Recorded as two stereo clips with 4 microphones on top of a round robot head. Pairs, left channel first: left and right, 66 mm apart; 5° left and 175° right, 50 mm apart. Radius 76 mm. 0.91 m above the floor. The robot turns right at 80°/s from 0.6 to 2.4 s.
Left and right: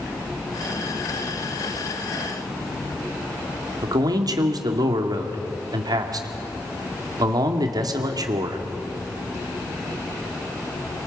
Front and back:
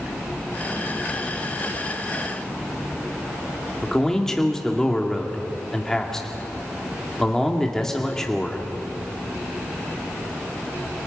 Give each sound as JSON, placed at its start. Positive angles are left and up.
{"t": 3.8, "sound": "a man speaking", "azimuth_deg": -80, "distance_m": 2.0}